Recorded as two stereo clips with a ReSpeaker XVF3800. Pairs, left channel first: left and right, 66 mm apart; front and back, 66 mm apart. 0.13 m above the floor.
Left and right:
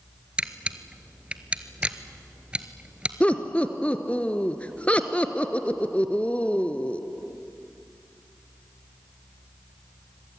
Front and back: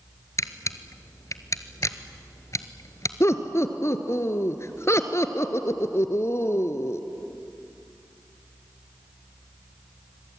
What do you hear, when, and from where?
0.4 s a camera shutter: 20° right, 1.0 m
3.2 s laughter: 25° left, 1.6 m